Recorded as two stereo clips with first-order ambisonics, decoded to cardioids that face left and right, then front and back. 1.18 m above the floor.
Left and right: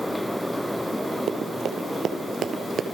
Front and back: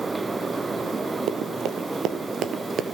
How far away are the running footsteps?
About 2 m.